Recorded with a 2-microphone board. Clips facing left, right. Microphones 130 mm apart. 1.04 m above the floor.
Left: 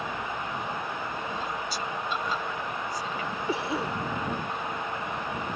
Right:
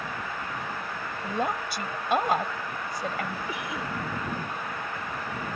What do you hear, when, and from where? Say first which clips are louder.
1.2 s a woman speaking: right 4 dB; 60° right (ahead or behind)
3.5 s a cough: left 4 dB; 35° left (ahead or behind)